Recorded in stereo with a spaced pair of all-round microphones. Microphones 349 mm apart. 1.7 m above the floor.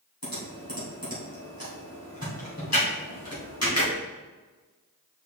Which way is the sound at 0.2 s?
50° left (ahead or behind).